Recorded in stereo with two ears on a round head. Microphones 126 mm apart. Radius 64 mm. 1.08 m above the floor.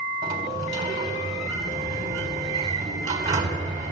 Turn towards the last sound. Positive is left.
turn(degrees=-30)  # may be behind; listen again after turning